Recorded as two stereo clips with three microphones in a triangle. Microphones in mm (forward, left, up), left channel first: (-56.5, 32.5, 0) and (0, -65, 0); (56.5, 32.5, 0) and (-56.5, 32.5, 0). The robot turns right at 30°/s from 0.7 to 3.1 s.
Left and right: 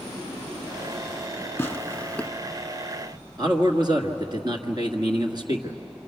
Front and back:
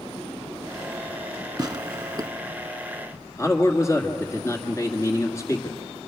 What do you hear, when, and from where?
1.6 s tearing paper: 175° left, 0.5 m; by 2.3 s 165° right, 0.5 m
3.4 s a man speaking: 45° right, 1.6 m